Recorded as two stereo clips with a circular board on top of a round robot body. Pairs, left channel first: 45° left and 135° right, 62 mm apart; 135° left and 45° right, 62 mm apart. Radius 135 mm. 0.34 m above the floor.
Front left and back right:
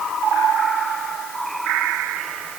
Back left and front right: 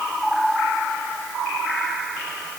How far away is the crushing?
I don't hear crushing.